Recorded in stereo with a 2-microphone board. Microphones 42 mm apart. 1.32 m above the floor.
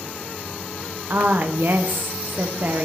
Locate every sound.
1.1 s a woman speaking: 55° right (ahead or behind), 0.6 m